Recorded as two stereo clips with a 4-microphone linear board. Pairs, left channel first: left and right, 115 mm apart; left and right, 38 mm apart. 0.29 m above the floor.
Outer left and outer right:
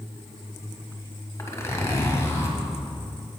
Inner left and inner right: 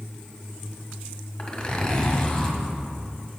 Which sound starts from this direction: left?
A zipper, at 1.4 s.